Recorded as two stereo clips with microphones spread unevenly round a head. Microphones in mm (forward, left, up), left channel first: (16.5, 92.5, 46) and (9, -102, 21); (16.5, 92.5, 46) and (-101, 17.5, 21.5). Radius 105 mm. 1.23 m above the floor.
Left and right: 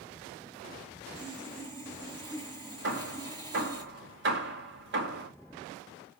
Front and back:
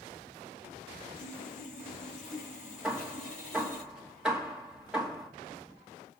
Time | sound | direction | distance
1.1 | sawing | 20° right | 6 m
2.8 | hammering | 65° right | 2.5 m